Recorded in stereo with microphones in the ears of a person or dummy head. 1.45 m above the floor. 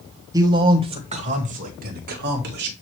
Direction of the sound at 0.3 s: 20° right (ahead or behind).